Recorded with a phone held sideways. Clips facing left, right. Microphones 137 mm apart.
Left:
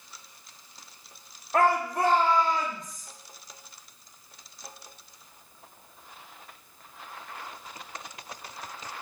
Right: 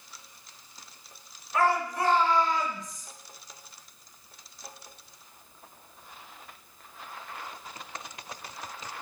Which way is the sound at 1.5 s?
55° left (ahead or behind).